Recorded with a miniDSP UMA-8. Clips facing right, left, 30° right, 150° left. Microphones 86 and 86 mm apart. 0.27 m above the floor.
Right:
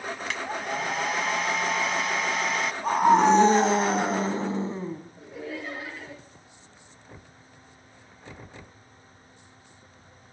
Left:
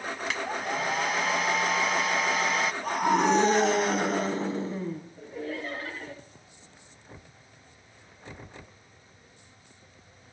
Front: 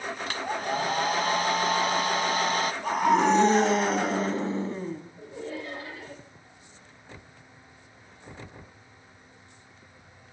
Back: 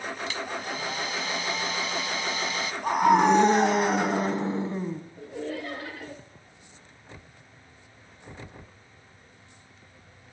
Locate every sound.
0.3 s a hair dryer: 5° left, 0.7 m
2.8 s a scream: 140° right, 2.5 m
5.2 s laughter: 170° right, 3 m